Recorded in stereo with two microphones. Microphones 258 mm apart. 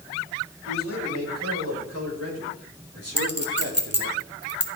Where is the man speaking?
85° right, 7.5 m; by 4.2 s 55° right (ahead or behind), 3 m.